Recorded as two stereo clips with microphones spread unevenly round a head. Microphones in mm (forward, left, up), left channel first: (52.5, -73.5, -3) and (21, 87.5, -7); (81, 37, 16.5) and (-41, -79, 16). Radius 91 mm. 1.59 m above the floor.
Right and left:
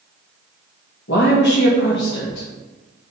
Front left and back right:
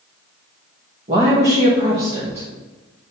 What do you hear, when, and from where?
1.1 s a woman speaking: 85° right, 1.6 m